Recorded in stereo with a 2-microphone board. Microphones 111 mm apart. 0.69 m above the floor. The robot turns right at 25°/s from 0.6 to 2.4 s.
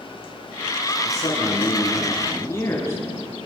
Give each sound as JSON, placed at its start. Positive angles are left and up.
{"t": 1.1, "sound": "a man speaking", "azimuth_deg": 120, "distance_m": 9.0}